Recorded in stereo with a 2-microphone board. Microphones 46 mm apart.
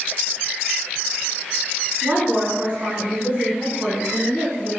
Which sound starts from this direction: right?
A woman speaking, at 2.0 s.